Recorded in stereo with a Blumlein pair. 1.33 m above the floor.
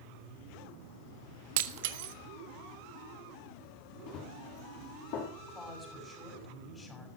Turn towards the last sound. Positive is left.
turn(degrees=15)